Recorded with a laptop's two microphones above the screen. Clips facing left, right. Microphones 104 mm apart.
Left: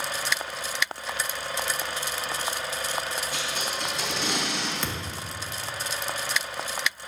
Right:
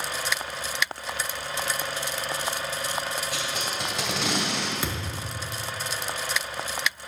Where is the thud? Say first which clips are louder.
Right 1 dB; 10° right (ahead or behind), 0.7 m.